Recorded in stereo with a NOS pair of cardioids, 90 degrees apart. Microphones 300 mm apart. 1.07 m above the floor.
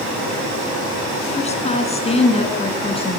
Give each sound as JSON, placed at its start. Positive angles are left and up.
{"t": 1.4, "sound": "a woman speaking", "azimuth_deg": 20, "distance_m": 9.0}